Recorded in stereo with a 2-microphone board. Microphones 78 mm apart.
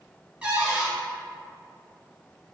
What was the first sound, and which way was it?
A cupboard door, 15° right (ahead or behind).